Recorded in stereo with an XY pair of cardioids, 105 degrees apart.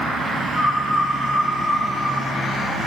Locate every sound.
0.6 s a bird: 15° right, 4 m